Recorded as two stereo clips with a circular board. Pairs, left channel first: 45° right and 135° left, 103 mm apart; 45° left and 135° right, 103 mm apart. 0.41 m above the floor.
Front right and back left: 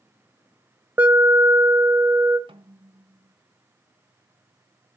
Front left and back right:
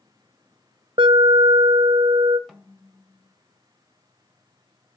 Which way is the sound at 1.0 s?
155° right.